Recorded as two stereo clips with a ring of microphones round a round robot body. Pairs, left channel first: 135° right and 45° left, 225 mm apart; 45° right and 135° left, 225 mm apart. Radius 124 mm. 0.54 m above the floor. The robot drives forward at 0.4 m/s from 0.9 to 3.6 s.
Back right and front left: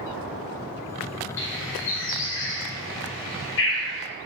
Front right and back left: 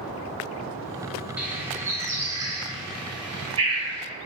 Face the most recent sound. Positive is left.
turn(degrees=-160)